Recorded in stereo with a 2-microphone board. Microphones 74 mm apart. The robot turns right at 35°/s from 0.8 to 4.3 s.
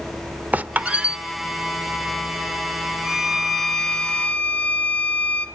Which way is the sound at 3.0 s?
20° right.